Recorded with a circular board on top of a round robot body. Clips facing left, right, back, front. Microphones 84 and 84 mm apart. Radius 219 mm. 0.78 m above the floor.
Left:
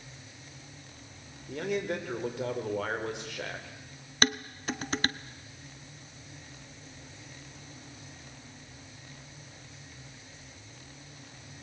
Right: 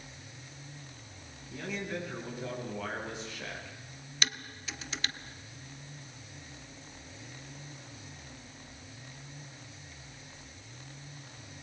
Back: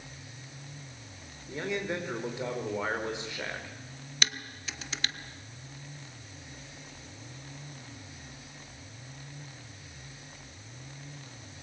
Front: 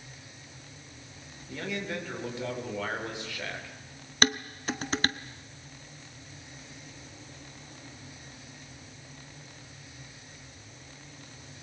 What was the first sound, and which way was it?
A man speaking, 110° left.